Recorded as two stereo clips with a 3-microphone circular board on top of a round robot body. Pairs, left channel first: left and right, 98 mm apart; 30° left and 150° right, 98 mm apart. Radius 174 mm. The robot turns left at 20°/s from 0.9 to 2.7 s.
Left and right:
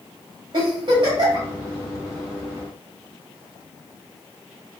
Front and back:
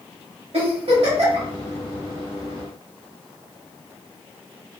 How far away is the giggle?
About 1.3 m.